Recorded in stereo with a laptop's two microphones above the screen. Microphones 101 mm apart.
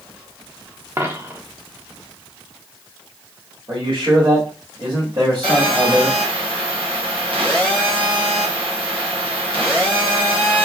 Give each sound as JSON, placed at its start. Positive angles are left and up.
{"t": 1.0, "sound": "a dropped coin", "side_deg": -25, "distance_m": 0.7}
{"t": 3.7, "sound": "a man speaking", "side_deg": -50, "distance_m": 2.0}
{"t": 5.4, "sound": "a phone buzzing", "side_deg": -60, "distance_m": 2.5}